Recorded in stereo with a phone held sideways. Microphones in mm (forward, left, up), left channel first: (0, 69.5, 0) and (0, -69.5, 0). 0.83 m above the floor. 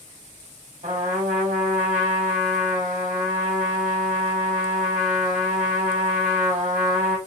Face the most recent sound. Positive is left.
turn(degrees=-70)  # may be behind; listen again after turning